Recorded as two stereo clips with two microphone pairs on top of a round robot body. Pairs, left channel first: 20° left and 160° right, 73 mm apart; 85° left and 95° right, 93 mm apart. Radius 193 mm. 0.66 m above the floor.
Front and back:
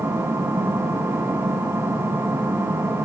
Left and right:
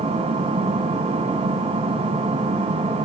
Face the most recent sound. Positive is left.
turn(degrees=-100)